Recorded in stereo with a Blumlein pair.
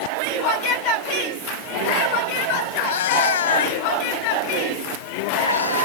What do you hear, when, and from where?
2.8 s a cat meowing: 55° left; by 5.9 s 75° left